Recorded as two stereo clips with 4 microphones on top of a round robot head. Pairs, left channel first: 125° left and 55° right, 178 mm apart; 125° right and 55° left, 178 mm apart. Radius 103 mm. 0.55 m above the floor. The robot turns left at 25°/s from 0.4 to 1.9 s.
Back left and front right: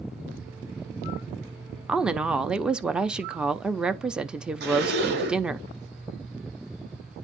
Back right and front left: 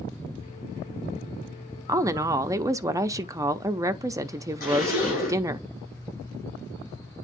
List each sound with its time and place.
1.9 s a woman speaking: 20° left, 0.7 m
4.6 s a zipper: 80° right, 7.5 m